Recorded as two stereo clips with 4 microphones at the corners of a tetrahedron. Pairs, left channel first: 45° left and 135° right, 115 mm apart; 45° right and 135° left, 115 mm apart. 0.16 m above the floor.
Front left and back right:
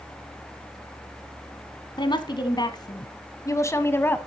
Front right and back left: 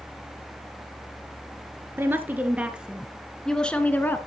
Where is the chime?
No chime in this recording.